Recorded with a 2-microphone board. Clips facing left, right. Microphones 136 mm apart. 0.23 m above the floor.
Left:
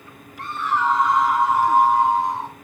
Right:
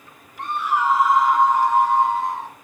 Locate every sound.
0.4 s a scream: 20° right (ahead or behind), 1.1 m; by 2.5 s 20° left (ahead or behind), 1.7 m